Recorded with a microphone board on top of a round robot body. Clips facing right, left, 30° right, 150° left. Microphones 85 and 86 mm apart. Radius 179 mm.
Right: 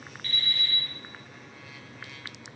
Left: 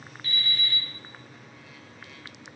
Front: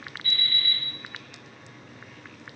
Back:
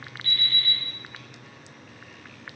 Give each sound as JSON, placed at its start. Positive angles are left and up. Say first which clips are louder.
{"t": 0.2, "sound": "an alarm clock", "louder": "left 2 dB, back 1 dB", "azimuth_deg": 170, "distance_m": 1.3}